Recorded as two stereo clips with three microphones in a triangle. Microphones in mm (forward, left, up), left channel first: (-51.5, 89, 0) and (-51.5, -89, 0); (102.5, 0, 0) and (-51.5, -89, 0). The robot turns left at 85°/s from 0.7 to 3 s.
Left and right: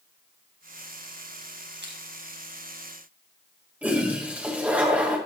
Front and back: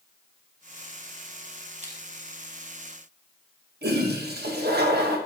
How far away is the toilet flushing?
About 1.1 m.